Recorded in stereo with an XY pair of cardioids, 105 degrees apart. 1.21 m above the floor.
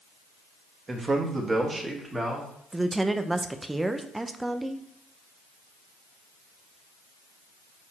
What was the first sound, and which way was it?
A man speaking, 30° right.